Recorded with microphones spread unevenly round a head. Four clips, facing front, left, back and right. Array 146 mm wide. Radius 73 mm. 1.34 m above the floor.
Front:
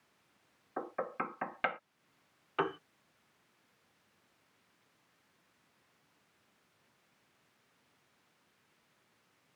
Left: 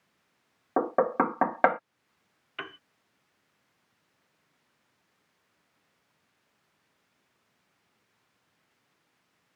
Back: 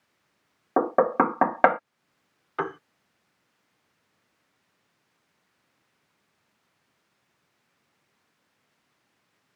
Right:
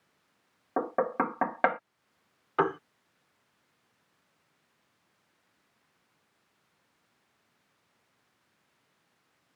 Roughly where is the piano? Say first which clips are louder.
Right 15 dB, back 4 dB; right.